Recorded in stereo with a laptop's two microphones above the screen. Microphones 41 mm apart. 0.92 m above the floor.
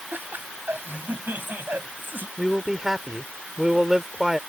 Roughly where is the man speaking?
Centre.